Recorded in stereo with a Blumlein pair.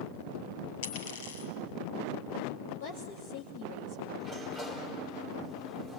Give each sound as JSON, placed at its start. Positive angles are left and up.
{"t": 0.8, "sound": "a dropped coin", "azimuth_deg": 55, "distance_m": 6.5}
{"t": 2.8, "sound": "a woman speaking", "azimuth_deg": 50, "distance_m": 3.0}
{"t": 4.2, "sound": "a sliding door", "azimuth_deg": 15, "distance_m": 3.5}